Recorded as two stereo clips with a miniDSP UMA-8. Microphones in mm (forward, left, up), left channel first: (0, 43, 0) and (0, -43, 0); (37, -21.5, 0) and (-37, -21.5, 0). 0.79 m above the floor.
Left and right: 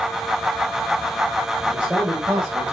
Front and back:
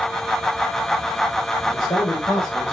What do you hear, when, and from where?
1.7 s a man speaking: 20° right, 3.5 m; by 2.7 s 25° right, 5 m